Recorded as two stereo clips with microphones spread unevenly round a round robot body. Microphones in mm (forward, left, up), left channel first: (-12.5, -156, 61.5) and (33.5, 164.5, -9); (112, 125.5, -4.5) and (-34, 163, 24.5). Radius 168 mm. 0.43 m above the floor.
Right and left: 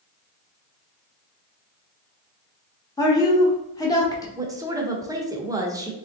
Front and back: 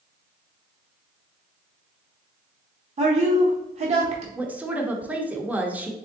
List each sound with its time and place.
3.0 s a woman speaking: 170° left, 0.9 m
4.3 s a woman speaking: 75° left, 0.7 m